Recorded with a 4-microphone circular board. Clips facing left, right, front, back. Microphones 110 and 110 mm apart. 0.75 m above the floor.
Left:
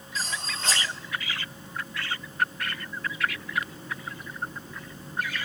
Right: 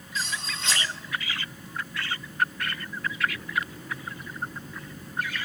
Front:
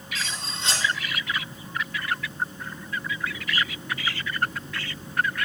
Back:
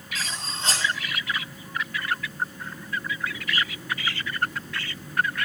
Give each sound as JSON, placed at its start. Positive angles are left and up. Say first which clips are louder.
{"t": 0.1, "sound": "cutlery clinking", "louder": "even, back 1 dB", "azimuth_deg": 135, "distance_m": 3.0}